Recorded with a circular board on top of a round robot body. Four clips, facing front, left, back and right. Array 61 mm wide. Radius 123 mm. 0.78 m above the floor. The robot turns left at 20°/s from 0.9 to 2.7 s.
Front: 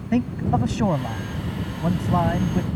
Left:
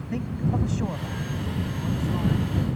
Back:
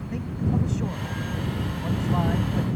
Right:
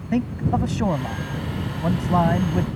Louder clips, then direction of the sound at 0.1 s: Right 6 dB, front 6 dB; 40° right.